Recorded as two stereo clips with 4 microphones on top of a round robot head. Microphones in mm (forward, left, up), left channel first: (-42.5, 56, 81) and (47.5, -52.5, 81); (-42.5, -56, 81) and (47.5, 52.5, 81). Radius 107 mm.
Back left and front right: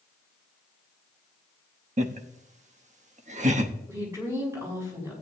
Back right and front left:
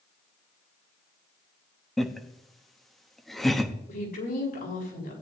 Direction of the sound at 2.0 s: 40° right.